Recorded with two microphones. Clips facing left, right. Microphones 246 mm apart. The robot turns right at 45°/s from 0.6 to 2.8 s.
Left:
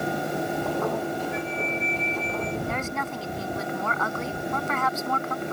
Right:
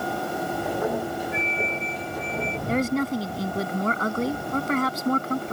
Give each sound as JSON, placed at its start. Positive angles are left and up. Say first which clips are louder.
{"t": 1.3, "sound": "a flute", "louder": "even", "azimuth_deg": -160}
{"t": 2.7, "sound": "a woman speaking", "louder": "right 8 dB", "side_deg": -35}